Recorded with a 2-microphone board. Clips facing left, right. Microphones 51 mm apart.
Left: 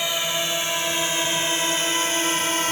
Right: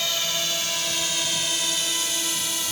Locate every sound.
0.0 s a drone: 25° left (ahead or behind); by 2.7 s 50° left (ahead or behind)